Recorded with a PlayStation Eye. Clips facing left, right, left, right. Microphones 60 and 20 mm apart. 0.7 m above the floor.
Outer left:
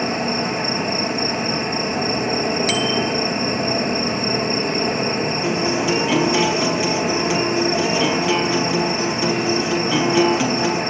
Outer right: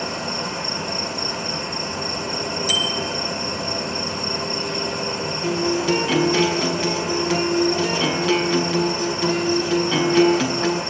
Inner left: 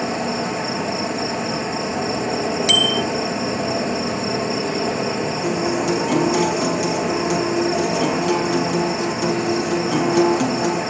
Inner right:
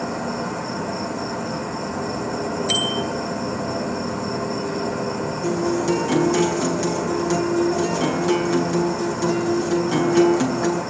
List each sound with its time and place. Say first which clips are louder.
0.0 s an insect: outer left 5 dB, inner left 3 dB; 50° left (ahead or behind), 1.8 m
2.7 s a bicycle bell: outer left 4 dB, inner left 7 dB; 70° left (ahead or behind), 4 m
5.4 s a guitar: outer right 2 dB, inner right 1 dB; 10° left (ahead or behind), 5.5 m